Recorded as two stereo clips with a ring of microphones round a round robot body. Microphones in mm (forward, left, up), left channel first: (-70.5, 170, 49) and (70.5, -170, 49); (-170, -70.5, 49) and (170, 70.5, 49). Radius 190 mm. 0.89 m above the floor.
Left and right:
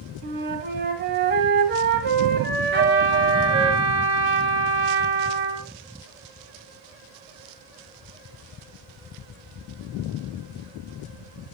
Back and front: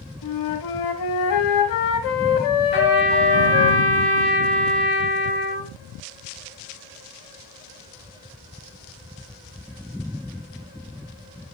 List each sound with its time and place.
0.2 s a flute: 130° right, 1.1 m
2.7 s a trumpet: 130° right, 4 m